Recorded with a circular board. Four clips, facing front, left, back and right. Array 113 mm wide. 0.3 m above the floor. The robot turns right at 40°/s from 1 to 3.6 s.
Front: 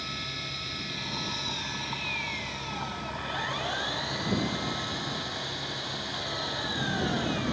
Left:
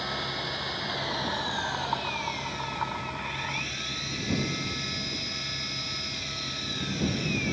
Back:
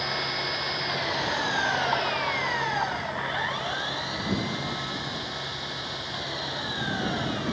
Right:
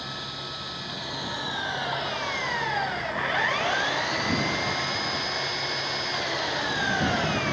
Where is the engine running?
160° left; by 7.5 s 95° right.